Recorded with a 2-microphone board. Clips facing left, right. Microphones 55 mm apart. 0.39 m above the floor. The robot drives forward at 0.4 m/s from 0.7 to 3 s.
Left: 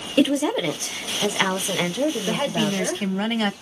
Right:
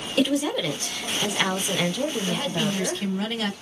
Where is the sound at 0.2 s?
20° left (ahead or behind), 0.8 m; by 3.0 s 15° left (ahead or behind), 1.3 m.